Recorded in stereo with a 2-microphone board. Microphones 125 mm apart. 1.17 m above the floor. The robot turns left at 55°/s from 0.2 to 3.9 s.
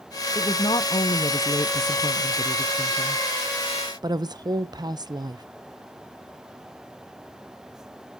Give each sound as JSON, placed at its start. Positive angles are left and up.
{"t": 0.3, "sound": "a woman speaking", "azimuth_deg": 140, "distance_m": 0.6}